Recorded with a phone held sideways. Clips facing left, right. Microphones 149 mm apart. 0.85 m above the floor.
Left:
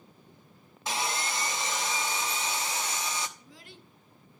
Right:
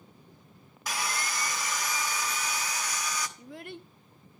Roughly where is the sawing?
Left.